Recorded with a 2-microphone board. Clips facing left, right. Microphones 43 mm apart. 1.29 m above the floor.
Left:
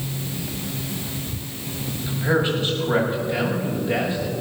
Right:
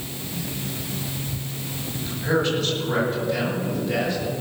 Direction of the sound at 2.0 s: 15° left (ahead or behind).